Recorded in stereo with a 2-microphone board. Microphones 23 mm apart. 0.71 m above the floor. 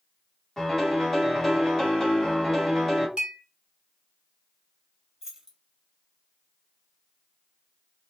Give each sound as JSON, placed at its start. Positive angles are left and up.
{"t": 0.6, "sound": "a piano", "side_deg": 15, "distance_m": 1.5}
{"t": 3.2, "sound": "a clink", "side_deg": -45, "distance_m": 1.5}
{"t": 5.2, "sound": "keys jangling", "side_deg": -25, "distance_m": 1.6}